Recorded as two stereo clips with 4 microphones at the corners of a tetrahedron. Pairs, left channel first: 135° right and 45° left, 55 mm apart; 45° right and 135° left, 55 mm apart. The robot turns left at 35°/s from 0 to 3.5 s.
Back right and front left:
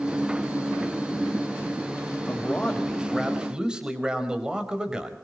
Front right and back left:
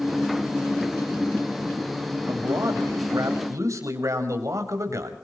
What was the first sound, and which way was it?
A man speaking, 160° left.